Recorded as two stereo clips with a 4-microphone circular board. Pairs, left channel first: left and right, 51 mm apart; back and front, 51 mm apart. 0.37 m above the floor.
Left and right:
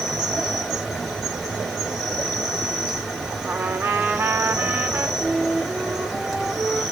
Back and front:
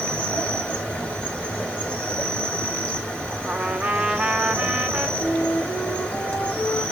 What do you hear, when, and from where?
0.0 s an insect: 165° right, 2 m
3.4 s a trumpet: 65° right, 0.9 m
5.2 s a flute: 160° right, 5.5 m